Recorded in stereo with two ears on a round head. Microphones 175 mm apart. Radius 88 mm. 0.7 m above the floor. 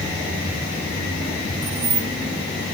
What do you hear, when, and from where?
1.6 s keys jangling: 65° right (ahead or behind), 2.5 m